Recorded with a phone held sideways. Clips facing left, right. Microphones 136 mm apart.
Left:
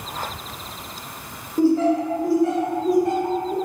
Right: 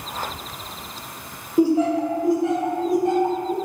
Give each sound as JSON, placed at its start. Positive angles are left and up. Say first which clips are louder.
{"t": 1.6, "sound": "laughter", "louder": "even", "side_deg": -10, "distance_m": 0.7}